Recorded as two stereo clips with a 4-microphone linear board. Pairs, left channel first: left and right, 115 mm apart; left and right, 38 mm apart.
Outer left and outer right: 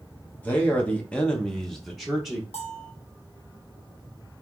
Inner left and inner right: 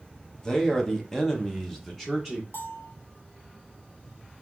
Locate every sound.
0.4 s a man speaking: 15° left (ahead or behind), 1.0 m; by 2.4 s 5° right (ahead or behind), 0.9 m
2.5 s a bell: 60° left (ahead or behind), 1.0 m